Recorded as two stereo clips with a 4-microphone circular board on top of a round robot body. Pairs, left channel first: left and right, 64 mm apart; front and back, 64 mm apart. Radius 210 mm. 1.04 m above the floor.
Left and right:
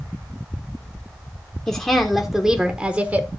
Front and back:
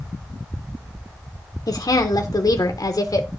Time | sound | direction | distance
1.7 | a woman speaking | 15° left | 1.4 m